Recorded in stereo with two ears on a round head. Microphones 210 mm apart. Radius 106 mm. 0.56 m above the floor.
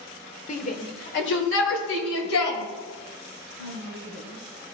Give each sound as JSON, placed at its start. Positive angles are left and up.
{"t": 0.5, "sound": "a shout", "side_deg": 35, "distance_m": 1.4}